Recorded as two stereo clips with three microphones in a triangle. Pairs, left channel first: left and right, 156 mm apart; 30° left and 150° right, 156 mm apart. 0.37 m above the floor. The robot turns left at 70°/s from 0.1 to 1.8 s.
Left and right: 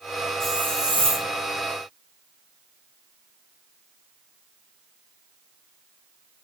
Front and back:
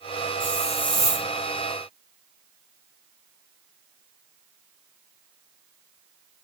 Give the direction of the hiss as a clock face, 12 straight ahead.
12 o'clock.